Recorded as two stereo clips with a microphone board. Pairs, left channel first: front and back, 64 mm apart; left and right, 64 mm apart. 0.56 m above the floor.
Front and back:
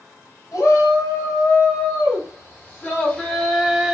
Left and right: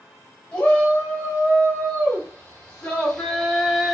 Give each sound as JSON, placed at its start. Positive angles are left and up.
{"t": 0.5, "sound": "a shout", "azimuth_deg": 25, "distance_m": 1.8}